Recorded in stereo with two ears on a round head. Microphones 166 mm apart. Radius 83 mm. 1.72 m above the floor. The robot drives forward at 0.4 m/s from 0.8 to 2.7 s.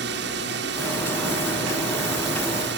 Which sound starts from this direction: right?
A drone, at 0.0 s.